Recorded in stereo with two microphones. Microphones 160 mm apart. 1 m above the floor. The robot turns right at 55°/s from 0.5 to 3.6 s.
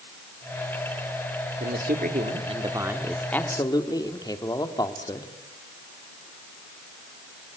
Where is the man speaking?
85° right, 1.9 m; by 5.3 s 25° left, 1.9 m.